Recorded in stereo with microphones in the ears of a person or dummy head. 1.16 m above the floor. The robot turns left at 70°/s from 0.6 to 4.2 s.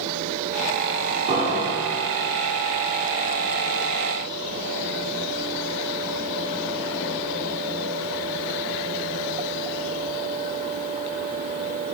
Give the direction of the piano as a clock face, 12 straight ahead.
5 o'clock.